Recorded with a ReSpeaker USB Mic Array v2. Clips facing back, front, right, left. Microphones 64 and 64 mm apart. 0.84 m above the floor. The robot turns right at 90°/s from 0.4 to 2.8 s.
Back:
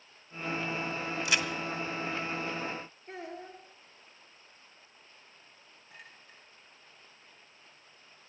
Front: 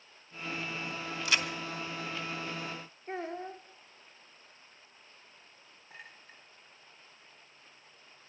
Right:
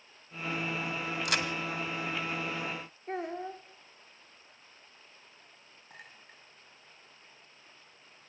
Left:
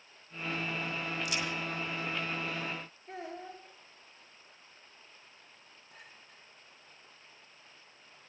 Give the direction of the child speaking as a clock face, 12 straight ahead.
2 o'clock.